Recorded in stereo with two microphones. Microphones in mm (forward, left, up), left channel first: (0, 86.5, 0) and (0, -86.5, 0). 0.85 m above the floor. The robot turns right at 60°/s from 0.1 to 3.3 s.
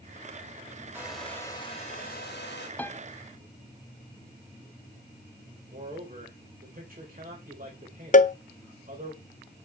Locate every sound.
0.9 s a hair dryer: 10° right, 3.5 m; by 2.7 s 95° left, 3.5 m
2.8 s a piano: 10° left (ahead or behind), 0.6 m; by 3.0 s 15° left (ahead or behind), 0.6 m
5.7 s a man speaking: 50° right (ahead or behind), 4 m
8.1 s a cowbell: 45° left (ahead or behind), 0.5 m